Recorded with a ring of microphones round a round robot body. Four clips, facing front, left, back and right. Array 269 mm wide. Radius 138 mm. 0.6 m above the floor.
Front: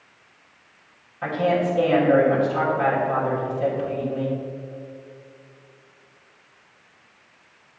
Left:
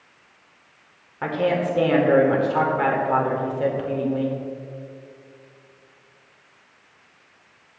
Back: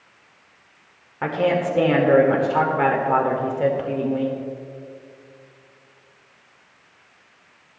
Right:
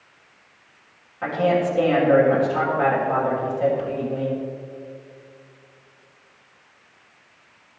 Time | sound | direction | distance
1.2 | a woman speaking | 155° left | 2.0 m